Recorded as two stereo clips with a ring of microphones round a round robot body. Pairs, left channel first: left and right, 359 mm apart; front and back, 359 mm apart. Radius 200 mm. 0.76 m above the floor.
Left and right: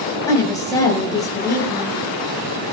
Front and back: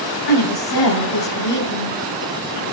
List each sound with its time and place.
0.3 s a woman speaking: 10° left, 5 m